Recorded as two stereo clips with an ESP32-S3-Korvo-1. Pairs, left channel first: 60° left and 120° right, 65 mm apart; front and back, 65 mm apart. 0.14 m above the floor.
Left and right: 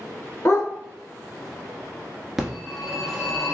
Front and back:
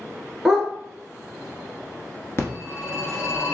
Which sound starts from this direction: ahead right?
A phone ringing, at 2.4 s.